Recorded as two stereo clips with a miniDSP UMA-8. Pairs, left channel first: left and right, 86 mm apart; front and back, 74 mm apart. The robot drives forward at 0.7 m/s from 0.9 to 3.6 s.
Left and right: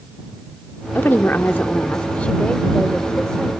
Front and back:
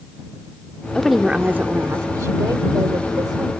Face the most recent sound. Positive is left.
turn(degrees=170)